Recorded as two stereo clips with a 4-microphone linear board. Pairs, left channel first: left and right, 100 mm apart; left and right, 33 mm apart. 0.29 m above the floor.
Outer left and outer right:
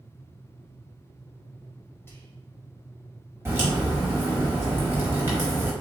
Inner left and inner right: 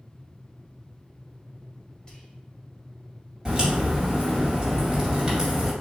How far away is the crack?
About 1.9 m.